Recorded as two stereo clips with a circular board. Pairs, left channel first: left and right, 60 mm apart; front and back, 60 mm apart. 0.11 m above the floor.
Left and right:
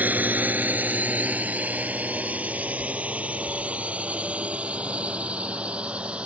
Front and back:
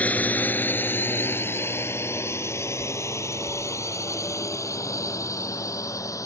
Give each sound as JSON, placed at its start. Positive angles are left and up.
{"t": 0.0, "sound": "a drone", "azimuth_deg": -50}